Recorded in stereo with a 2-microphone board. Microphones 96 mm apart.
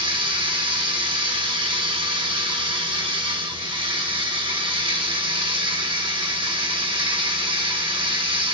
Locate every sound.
0.0 s running water: 55° right (ahead or behind), 5 m